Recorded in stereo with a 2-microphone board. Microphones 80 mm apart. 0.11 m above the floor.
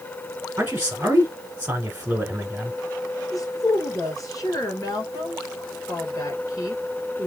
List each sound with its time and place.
0.6 s a man speaking: 20° right (ahead or behind), 1.1 m
3.3 s a woman speaking: 45° left (ahead or behind), 1.8 m